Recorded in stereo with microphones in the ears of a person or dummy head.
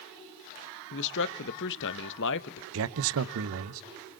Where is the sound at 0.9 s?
70° left (ahead or behind), 1.1 m.